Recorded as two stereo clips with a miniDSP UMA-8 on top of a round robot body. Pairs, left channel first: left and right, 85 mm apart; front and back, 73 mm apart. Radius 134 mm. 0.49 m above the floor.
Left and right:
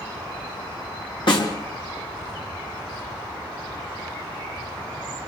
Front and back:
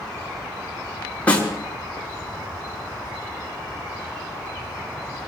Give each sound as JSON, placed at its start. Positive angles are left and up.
{"t": 1.3, "sound": "a snare drum", "azimuth_deg": 70, "distance_m": 3.5}